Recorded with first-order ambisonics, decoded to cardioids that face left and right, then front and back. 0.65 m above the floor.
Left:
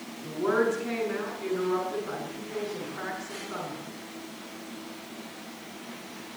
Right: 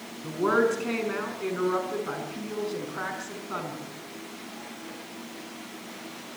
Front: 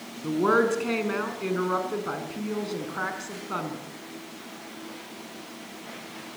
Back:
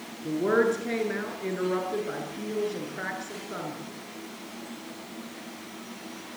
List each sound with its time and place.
0.2 s a woman speaking: 20° right, 6 m